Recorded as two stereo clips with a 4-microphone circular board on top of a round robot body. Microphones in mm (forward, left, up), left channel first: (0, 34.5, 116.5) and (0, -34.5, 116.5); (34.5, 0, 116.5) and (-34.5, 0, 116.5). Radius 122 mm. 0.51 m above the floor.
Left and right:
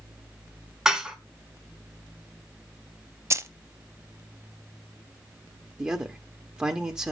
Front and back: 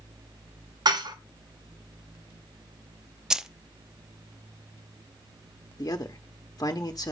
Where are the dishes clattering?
170° right, 1.5 m.